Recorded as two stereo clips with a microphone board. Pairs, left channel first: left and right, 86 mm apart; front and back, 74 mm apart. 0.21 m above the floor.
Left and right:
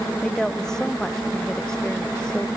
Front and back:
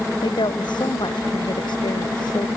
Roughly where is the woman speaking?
Ahead.